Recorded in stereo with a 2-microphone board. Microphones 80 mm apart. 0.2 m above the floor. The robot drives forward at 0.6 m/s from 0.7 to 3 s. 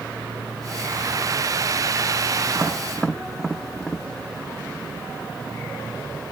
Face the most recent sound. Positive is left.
turn(degrees=5)  # may be behind; listen again after turning